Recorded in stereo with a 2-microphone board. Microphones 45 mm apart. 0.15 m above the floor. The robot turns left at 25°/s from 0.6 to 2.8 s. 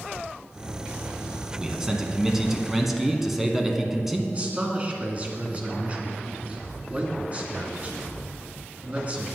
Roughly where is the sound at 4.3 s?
Right.